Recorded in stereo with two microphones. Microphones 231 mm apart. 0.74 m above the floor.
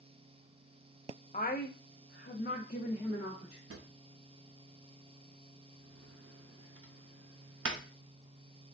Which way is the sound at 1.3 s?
35° left (ahead or behind).